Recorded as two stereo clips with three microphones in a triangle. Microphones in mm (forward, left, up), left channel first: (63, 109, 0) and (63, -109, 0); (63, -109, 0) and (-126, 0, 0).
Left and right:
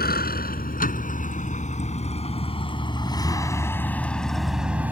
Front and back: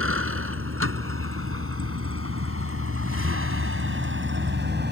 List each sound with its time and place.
0.0 s a vehicle: 135° left; by 4.9 s 170° right